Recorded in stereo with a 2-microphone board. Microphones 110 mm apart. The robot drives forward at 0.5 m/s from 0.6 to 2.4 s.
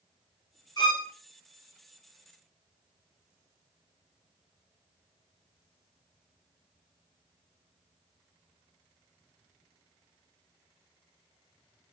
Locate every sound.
0.8 s a violin: 40° left (ahead or behind), 1.6 m; by 1.1 s 45° left (ahead or behind), 1.5 m